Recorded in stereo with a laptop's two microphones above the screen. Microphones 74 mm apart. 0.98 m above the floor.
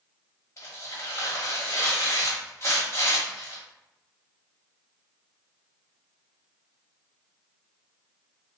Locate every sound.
0.6 s tearing paper: 40° left (ahead or behind), 1.2 m